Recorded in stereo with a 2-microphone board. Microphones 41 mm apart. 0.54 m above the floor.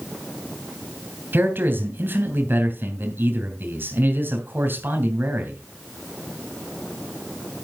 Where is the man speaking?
55° right (ahead or behind), 3 m.